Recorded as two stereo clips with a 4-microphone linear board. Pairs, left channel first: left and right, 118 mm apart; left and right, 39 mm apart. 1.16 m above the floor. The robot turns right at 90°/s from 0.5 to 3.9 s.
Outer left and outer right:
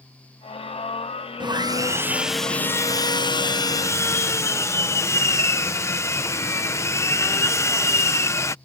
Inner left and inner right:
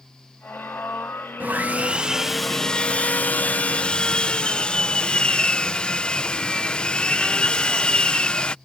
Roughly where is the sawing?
Right.